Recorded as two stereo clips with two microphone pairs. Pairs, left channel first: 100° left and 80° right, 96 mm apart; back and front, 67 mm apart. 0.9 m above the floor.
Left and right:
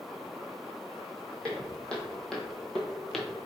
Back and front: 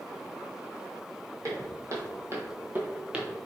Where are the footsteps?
25° left, 1.7 m; by 3.5 s 45° left, 0.8 m.